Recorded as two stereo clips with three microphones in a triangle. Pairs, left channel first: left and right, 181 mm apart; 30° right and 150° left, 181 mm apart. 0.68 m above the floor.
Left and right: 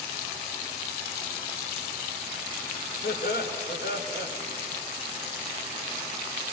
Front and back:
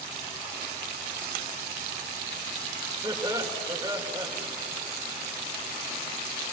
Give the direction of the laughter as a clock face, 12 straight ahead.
9 o'clock.